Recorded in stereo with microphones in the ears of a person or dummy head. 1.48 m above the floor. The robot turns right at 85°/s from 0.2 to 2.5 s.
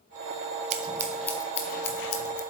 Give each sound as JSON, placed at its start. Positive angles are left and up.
{"t": 0.7, "sound": "scissors", "side_deg": -35, "distance_m": 0.8}